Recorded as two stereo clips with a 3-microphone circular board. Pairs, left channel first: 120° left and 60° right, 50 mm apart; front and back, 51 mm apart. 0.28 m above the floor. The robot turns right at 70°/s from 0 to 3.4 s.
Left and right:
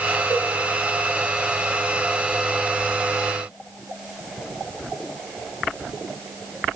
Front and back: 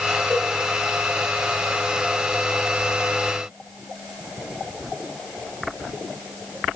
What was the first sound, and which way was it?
A cowbell, 125° left.